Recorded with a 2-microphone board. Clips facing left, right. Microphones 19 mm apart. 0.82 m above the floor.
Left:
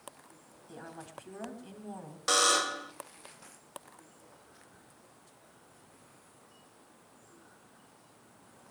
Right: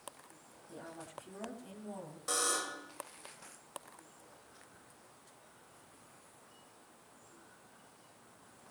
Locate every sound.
0.7 s a woman speaking: 40° left (ahead or behind), 6.5 m; by 2.2 s 25° left (ahead or behind), 6.5 m
2.3 s a buzzer: 55° left (ahead or behind), 1.2 m